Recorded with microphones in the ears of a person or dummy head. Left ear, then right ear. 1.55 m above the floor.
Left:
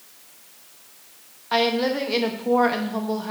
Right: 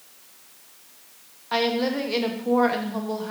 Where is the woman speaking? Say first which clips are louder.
Left 2 dB; 5° left (ahead or behind), 1.1 m.